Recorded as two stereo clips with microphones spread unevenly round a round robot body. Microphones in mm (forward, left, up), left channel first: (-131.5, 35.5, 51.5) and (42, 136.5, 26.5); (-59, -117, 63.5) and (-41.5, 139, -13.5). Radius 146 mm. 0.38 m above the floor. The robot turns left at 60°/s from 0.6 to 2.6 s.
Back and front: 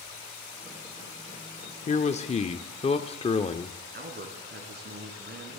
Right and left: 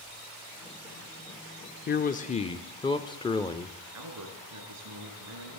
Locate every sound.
1.9 s a man speaking: 140° right, 0.8 m; by 3.7 s straight behind, 0.8 m
3.9 s a man speaking: 65° left, 4 m